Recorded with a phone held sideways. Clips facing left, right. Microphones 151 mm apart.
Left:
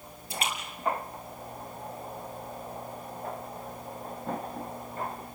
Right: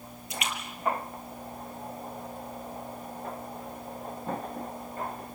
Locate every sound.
0.3 s a splash: 30° left (ahead or behind), 6 m